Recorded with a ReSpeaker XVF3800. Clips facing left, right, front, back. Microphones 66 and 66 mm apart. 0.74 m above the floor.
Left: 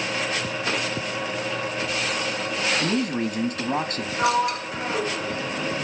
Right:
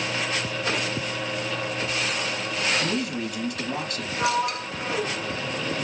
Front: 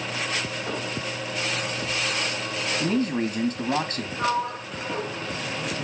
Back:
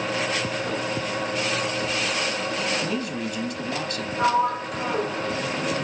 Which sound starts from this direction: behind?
A sliding door, at 4.2 s.